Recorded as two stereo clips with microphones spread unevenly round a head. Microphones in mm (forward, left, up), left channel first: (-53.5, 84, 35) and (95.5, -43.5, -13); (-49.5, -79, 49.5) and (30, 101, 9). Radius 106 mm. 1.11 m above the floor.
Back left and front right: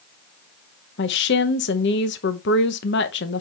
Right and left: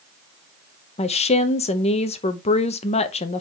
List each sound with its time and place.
1.0 s a woman speaking: 175° right, 0.7 m